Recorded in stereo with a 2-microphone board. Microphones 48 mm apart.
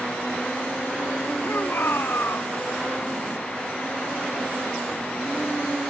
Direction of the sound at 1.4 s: 55° left (ahead or behind).